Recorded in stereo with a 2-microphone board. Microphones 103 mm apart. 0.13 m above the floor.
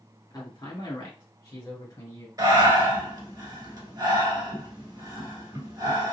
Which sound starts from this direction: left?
A man speaking, at 0.3 s.